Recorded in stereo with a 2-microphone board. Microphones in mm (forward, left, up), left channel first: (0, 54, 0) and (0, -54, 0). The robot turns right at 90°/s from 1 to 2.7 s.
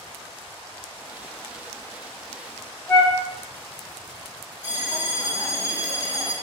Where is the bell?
15° right (ahead or behind), 1.5 m.